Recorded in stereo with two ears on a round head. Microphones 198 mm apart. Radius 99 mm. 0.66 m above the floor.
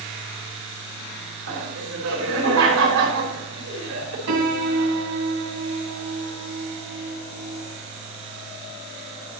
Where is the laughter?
70° right (ahead or behind), 3.5 m.